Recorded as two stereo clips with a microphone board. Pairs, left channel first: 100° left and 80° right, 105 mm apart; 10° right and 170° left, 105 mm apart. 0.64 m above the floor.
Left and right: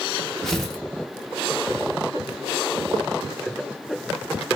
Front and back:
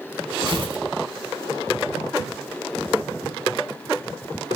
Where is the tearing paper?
175° right, 1.0 m.